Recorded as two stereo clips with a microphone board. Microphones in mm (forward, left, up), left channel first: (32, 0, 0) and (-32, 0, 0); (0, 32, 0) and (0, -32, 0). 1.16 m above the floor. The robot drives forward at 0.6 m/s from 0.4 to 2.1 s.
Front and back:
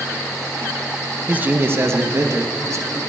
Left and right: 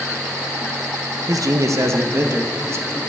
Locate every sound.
1.3 s a man speaking: 115° right, 0.8 m; by 3.0 s 140° right, 1.1 m